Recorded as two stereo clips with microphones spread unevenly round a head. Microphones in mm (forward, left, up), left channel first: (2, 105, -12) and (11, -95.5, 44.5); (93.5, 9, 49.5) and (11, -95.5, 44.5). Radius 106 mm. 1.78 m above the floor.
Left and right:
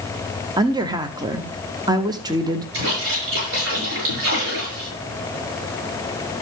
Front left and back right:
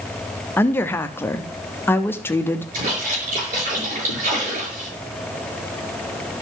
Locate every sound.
0.6 s a woman speaking: 20° right, 0.8 m
2.7 s a splash: 110° right, 7 m